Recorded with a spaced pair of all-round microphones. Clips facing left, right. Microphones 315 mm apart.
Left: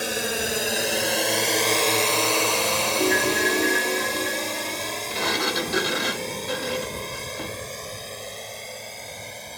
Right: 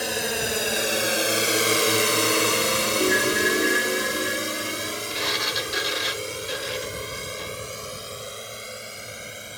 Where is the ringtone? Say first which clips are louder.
Left 1 dB; centre (ahead or behind).